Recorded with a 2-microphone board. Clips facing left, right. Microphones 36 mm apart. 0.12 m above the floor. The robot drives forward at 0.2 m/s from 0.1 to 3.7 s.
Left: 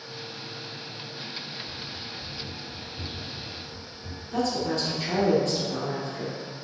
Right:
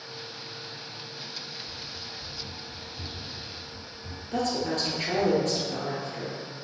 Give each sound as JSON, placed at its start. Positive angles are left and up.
{"t": 1.7, "sound": "running footsteps", "side_deg": 60, "distance_m": 1.7}
{"t": 4.3, "sound": "a woman speaking", "side_deg": -45, "distance_m": 1.8}